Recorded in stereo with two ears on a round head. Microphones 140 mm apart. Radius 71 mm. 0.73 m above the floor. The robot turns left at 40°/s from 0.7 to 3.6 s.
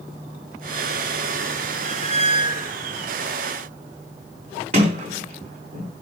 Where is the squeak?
125° right, 0.7 m; by 2.7 s 160° right, 0.7 m.